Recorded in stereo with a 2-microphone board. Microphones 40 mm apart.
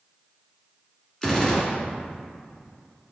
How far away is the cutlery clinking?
No cutlery clinking in this recording.